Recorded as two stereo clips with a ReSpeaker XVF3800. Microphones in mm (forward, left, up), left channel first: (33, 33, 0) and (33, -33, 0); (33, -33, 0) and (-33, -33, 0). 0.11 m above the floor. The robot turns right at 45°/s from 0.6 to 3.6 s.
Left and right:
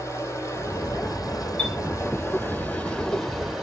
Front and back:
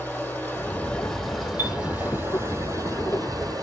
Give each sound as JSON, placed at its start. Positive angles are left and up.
{"t": 0.0, "sound": "running water", "azimuth_deg": 60, "distance_m": 3.0}
{"t": 1.6, "sound": "a chime", "azimuth_deg": 150, "distance_m": 0.8}